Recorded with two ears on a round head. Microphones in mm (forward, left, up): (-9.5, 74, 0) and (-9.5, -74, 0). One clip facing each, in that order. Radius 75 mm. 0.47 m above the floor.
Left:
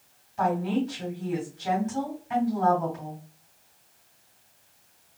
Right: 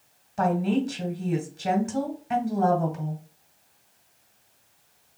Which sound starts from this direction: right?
A woman speaking, at 0.4 s.